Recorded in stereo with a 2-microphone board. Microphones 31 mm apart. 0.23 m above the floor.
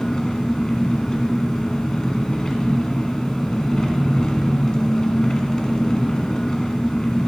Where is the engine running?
20° left (ahead or behind), 1.3 m.